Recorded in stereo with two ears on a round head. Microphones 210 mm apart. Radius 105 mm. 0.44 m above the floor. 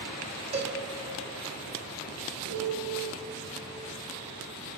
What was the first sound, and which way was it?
A cowbell, 30° right (ahead or behind).